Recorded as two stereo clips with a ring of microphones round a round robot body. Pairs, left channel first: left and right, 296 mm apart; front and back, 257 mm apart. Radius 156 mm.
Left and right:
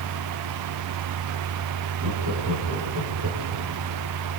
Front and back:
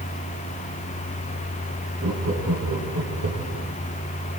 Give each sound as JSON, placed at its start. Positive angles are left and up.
{"t": 2.0, "sound": "laughter", "azimuth_deg": -135, "distance_m": 9.5}